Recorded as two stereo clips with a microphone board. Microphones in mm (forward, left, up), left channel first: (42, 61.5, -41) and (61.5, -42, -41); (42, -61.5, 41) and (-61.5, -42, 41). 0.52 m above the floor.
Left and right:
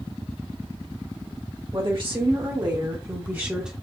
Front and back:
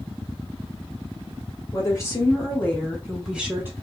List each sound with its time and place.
1.7 s a woman speaking: 65° right, 1.8 m; by 3.7 s 155° right, 1.0 m